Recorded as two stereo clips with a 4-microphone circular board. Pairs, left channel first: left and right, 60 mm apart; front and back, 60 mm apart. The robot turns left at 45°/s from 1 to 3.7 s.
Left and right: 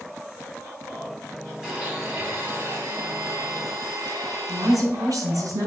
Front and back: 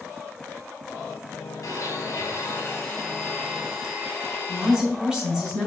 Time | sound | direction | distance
1.6 | a blender | 15° right | 3 m
4.5 | a woman speaking | 105° right | 3.5 m